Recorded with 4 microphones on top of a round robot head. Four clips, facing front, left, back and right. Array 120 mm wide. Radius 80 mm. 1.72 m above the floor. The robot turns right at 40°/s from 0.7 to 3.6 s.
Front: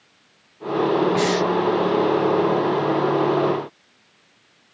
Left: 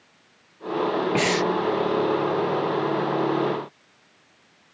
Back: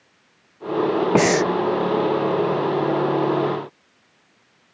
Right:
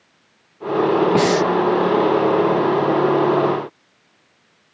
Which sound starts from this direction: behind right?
Breathing, at 1.1 s.